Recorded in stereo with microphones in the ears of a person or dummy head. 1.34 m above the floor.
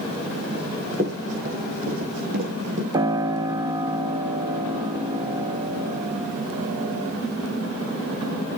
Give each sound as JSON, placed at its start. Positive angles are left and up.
{"t": 0.5, "sound": "running footsteps", "side_deg": -25, "distance_m": 4.5}
{"t": 2.9, "sound": "a piano", "side_deg": -30, "distance_m": 0.8}